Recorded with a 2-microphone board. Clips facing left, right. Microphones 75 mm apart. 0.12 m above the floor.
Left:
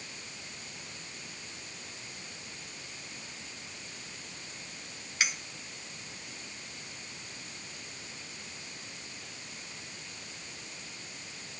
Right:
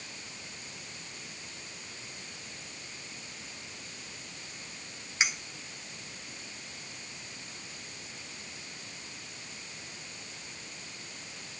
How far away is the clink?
About 0.8 m.